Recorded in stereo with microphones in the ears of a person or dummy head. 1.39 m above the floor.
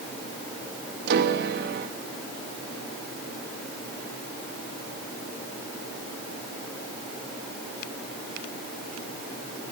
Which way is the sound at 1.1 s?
65° right (ahead or behind).